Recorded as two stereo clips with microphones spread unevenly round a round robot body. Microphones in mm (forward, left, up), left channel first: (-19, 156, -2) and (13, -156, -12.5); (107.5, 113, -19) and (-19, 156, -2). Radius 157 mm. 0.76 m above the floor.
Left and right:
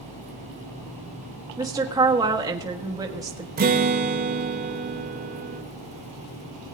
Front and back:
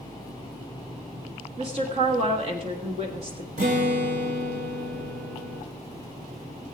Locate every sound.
1.6 s a woman speaking: 155° right, 1.3 m
3.6 s a guitar: 150° right, 1.1 m